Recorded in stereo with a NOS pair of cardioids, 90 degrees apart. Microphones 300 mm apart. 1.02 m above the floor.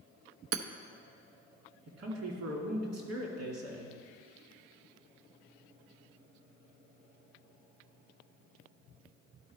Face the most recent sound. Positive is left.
turn(degrees=-70)